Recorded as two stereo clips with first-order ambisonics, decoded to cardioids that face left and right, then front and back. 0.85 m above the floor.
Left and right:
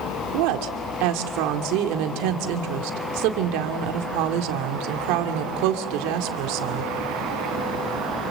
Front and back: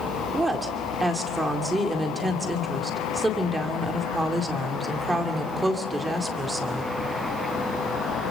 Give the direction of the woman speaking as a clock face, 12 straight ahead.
3 o'clock.